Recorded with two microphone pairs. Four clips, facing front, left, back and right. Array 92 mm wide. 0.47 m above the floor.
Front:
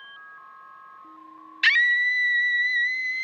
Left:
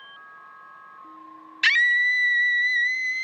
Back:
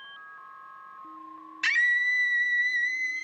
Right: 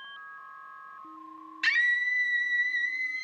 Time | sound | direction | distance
1.6 | a scream | 40° left | 0.7 m